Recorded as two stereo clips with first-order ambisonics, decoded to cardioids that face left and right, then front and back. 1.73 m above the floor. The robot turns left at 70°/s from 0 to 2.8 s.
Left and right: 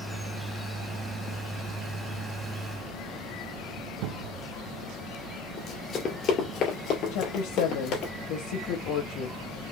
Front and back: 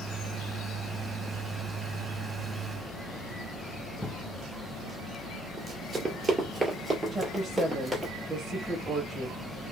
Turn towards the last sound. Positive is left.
turn(degrees=100)